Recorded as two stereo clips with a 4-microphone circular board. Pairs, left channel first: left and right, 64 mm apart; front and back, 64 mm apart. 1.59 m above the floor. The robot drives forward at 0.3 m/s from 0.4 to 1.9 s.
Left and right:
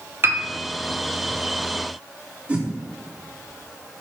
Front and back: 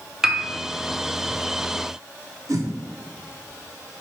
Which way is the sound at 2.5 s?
160° right.